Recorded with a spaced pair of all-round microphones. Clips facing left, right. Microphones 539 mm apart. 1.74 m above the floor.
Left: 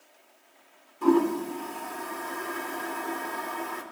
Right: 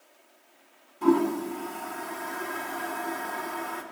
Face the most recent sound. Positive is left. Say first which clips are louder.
# even
turn(degrees=-5)  # may be behind; listen again after turning